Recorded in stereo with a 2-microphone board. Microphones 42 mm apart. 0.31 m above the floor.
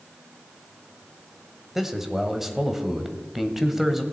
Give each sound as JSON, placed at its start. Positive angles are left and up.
{"t": 1.8, "sound": "a man speaking", "side_deg": -5, "distance_m": 1.2}